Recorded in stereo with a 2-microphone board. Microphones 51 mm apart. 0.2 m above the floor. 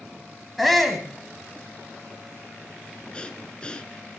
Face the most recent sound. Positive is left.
turn(degrees=20)  # may be behind; listen again after turning